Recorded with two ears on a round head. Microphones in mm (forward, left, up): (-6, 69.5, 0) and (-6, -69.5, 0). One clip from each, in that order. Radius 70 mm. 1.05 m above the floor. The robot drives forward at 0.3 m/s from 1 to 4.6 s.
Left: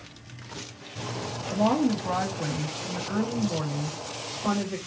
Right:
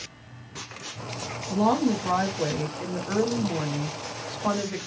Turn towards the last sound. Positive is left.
turn(degrees=-55)  # may be behind; listen again after turning